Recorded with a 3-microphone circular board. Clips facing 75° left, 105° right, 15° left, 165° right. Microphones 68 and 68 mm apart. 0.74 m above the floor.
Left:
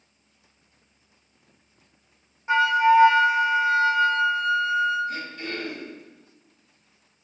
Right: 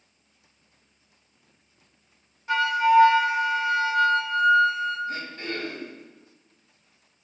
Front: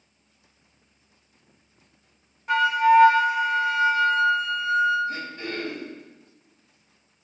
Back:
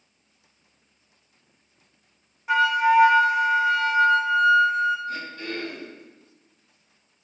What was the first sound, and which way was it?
A flute, 115° left.